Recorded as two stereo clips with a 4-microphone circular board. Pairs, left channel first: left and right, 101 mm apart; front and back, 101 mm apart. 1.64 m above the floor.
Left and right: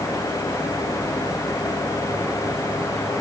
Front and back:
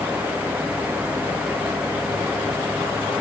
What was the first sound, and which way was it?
Only background noise.